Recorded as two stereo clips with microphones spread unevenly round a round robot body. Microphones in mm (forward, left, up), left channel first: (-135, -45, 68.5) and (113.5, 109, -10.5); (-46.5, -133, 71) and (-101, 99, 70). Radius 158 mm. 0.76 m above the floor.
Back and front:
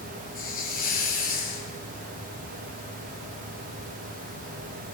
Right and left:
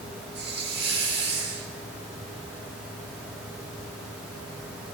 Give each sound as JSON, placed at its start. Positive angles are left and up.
{"t": 0.3, "sound": "a hiss", "azimuth_deg": 150, "distance_m": 2.5}